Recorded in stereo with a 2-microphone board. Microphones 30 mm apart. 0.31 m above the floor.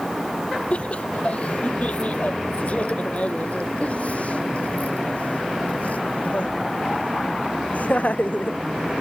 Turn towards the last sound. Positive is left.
turn(degrees=55)  # may be behind; listen again after turning